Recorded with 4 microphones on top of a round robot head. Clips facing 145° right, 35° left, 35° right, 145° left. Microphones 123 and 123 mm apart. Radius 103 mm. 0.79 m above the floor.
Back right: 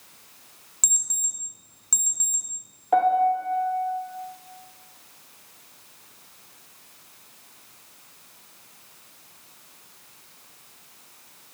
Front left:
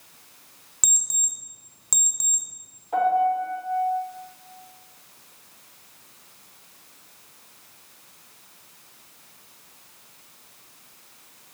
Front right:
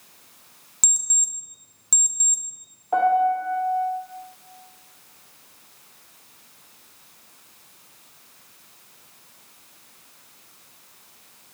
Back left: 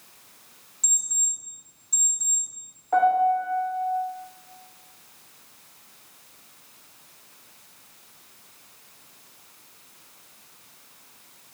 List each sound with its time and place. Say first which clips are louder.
0.8 s an alarm clock: front left 3 dB, front right 6 dB; 40° right, 0.8 m
2.9 s a piano: back right 1 dB, front right 1 dB; 110° right, 0.6 m